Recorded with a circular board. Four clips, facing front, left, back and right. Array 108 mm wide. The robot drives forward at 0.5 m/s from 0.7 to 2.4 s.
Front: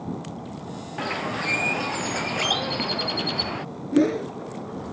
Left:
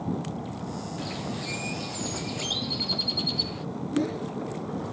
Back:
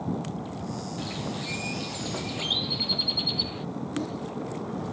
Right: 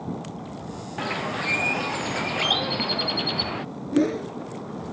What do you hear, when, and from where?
1.0 s a bird: 40° right; by 3.6 s 45° right
3.9 s a whoosh: 25° right